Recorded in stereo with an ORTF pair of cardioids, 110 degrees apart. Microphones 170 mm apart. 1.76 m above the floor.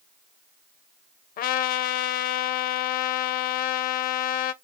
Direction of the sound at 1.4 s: 60° left.